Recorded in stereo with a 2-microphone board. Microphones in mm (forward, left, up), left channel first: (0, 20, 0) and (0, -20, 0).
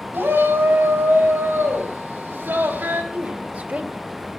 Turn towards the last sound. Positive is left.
turn(degrees=-45)  # may be behind; listen again after turning